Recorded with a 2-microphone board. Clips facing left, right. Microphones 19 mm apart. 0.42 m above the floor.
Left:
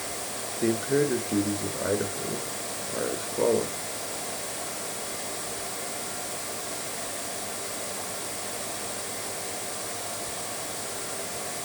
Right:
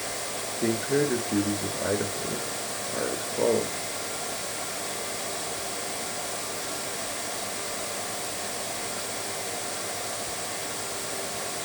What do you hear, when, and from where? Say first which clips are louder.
0.6 s a man speaking: left 1 dB; 10° left (ahead or behind), 1.3 m